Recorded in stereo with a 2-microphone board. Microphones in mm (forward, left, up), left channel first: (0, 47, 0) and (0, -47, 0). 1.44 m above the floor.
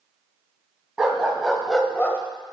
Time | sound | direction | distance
1.0 | a dog barking | 10° right (ahead or behind) | 2.5 m